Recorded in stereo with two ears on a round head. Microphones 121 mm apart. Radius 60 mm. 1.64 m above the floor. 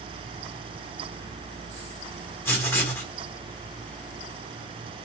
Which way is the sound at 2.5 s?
15° left (ahead or behind).